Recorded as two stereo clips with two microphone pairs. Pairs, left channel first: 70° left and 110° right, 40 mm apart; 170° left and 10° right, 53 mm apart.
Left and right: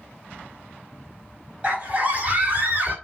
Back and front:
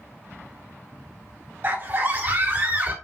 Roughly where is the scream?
Ahead right.